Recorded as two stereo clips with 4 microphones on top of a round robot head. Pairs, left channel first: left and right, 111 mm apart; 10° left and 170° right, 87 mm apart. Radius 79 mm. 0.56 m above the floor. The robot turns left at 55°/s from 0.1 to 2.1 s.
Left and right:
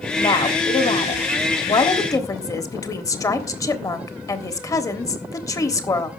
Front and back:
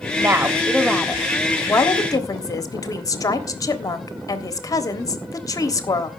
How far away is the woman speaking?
About 1.5 m.